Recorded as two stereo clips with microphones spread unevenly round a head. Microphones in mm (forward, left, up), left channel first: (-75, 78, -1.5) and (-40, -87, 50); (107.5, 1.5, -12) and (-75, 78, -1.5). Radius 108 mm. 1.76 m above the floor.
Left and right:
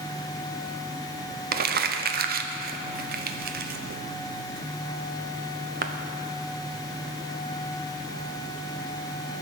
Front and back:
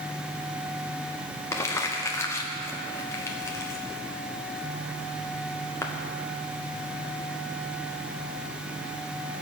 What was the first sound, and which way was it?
Crumpling, 100° right.